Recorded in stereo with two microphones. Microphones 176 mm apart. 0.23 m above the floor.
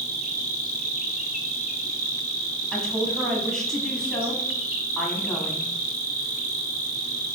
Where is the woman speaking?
5° left (ahead or behind), 1.3 m.